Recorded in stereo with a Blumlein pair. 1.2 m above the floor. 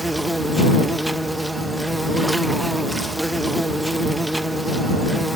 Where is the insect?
5° right.